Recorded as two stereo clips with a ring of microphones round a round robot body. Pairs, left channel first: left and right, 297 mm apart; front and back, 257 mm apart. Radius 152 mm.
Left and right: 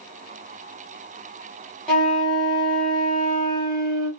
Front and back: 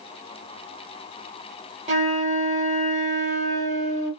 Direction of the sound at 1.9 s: 175° left.